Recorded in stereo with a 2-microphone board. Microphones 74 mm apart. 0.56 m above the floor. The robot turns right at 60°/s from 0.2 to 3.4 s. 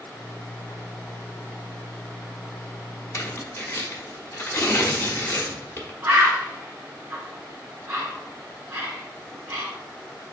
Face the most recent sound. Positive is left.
turn(degrees=-30)  # may be behind; listen again after turning